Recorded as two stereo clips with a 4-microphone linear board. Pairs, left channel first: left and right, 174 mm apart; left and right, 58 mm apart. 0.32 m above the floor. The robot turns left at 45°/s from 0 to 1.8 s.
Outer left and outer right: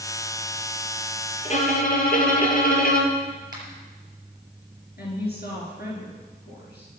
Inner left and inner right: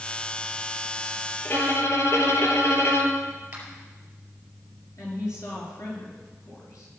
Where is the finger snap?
25° right (ahead or behind), 5 m.